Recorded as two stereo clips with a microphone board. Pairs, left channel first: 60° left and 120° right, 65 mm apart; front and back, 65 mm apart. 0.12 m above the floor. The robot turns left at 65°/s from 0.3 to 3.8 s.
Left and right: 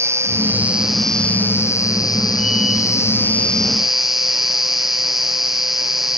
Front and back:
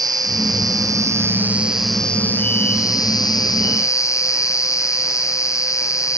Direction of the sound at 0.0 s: 165° right.